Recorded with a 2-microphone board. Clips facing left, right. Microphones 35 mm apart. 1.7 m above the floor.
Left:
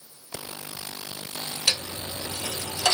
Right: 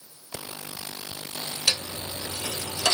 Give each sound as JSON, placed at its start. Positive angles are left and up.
{"t": 1.7, "sound": "a dropped coin", "side_deg": 25, "distance_m": 1.8}